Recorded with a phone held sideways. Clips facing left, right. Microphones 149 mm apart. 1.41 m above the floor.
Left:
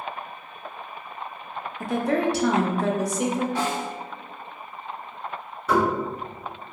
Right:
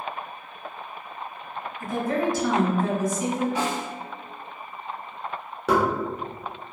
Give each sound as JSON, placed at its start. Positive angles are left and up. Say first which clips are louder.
{"t": 1.8, "sound": "a woman speaking", "louder": "left 2 dB", "side_deg": 80, "distance_m": 0.5}
{"t": 3.5, "sound": "a snare drum", "louder": "left 1 dB", "side_deg": -20, "distance_m": 1.5}
{"t": 5.7, "sound": "knocking", "louder": "even", "side_deg": -85, "distance_m": 1.0}